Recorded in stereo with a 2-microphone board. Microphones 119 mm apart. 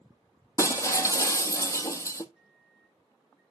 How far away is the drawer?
No drawer in this recording.